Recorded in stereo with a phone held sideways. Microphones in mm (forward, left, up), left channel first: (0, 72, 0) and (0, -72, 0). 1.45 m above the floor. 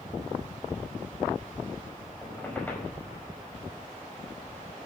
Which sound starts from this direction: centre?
A squeak, at 2.2 s.